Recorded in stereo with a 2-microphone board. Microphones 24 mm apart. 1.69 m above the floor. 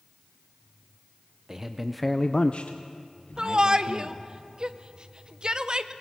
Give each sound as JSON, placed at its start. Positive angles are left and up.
{"t": 1.5, "sound": "a man speaking", "side_deg": -25, "distance_m": 1.1}
{"t": 3.4, "sound": "a shout", "side_deg": -40, "distance_m": 0.8}